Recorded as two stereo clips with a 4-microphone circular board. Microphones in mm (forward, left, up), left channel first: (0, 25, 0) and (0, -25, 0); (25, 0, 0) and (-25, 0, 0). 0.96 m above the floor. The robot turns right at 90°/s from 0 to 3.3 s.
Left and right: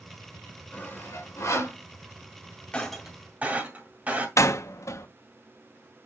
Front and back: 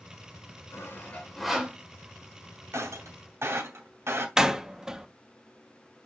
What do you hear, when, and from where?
0.7 s sawing: 25° left, 2.5 m; by 1.8 s 120° left, 2.5 m
2.7 s breaking glass: 160° left, 2 m; by 4.3 s 150° right, 2 m
4.4 s a door slam: 100° left, 0.8 m